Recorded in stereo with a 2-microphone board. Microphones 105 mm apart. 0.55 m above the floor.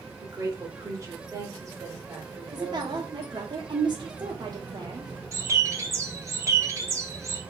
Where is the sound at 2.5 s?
45° right (ahead or behind), 1.0 m.